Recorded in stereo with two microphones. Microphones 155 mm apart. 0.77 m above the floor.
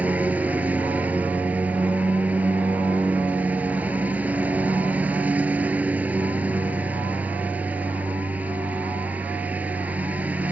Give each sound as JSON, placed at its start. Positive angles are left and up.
{"t": 0.0, "sound": "a lawn mower", "side_deg": -10}